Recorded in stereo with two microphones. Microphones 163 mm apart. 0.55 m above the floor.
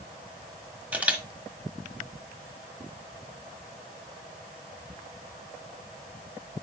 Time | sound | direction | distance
0.9 | a camera shutter | 10° right (ahead or behind) | 1.2 m